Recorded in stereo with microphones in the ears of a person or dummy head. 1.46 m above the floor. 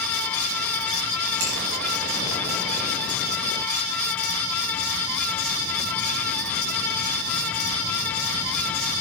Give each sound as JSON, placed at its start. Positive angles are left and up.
{"t": 1.4, "sound": "a finger snap", "side_deg": -60, "distance_m": 6.0}